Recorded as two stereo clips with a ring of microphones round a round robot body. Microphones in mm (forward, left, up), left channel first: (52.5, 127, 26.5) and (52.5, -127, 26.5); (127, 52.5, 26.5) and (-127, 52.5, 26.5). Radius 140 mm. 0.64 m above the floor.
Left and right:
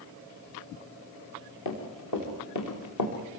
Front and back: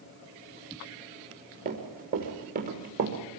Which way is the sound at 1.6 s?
125° left.